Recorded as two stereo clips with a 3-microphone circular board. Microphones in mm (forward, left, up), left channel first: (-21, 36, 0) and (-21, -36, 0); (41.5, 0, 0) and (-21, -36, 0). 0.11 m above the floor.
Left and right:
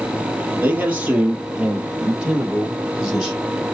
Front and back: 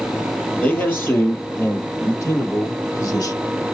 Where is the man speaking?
30° right, 2 m; by 3.4 s 10° right, 3.5 m.